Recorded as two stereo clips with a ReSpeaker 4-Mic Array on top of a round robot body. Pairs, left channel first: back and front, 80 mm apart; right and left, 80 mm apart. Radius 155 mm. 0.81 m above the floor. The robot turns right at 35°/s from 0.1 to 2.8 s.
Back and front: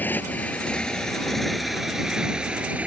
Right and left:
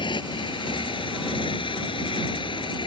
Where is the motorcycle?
110° right; by 2.9 s 75° right.